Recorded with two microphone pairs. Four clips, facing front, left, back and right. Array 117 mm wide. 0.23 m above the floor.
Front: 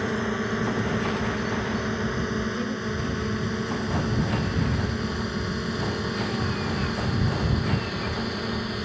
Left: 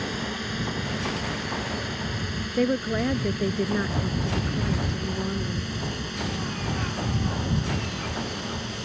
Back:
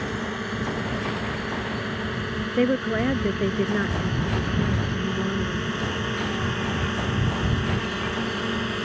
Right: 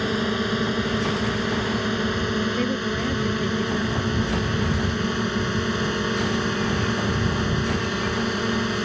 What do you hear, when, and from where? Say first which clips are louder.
0.0 s a drone: right 7 dB, front 3 dB; 70° right; by 8.9 s 100° right
2.6 s a woman speaking: left 1 dB, back 7 dB; 150° left